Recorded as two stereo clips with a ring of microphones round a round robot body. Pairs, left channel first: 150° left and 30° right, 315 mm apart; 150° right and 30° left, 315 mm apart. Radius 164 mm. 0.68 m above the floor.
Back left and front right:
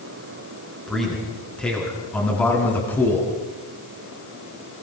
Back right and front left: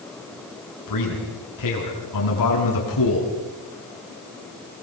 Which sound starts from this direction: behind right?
A man speaking, at 0.9 s.